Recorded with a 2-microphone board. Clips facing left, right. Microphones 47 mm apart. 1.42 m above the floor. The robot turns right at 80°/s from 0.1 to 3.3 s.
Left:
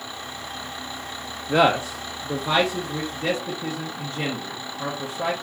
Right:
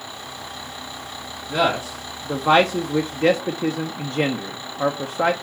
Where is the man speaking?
40° left (ahead or behind), 0.5 m; by 5.3 s 70° right (ahead or behind), 0.5 m.